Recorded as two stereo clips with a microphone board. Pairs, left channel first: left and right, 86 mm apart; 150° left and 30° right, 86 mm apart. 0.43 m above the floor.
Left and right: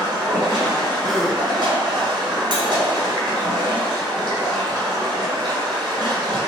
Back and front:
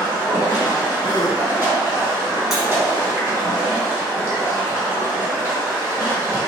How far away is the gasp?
About 0.5 m.